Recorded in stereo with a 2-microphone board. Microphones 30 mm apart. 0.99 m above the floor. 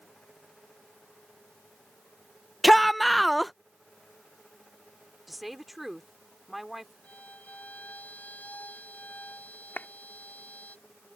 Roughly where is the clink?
I don't hear a clink.